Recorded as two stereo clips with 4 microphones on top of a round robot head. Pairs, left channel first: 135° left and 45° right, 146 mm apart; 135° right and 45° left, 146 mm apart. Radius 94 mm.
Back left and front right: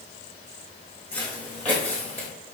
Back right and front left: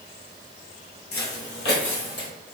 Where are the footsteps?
145° right, 0.9 m.